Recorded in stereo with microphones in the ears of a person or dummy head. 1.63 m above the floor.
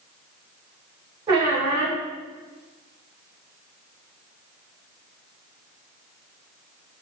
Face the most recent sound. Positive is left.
turn(degrees=-25)  # may be behind; listen again after turning